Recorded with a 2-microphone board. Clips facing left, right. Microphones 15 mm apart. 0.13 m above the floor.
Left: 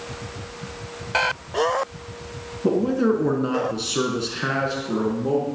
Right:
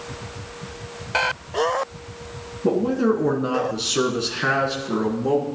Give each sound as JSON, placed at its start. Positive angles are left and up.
{"t": 2.6, "sound": "a man speaking", "side_deg": 5, "distance_m": 1.4}